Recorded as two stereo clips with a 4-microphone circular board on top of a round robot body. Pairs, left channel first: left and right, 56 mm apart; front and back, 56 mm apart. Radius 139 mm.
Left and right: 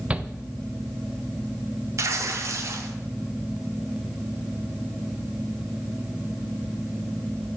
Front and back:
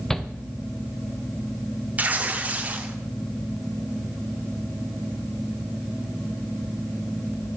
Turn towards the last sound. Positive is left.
turn(degrees=-120)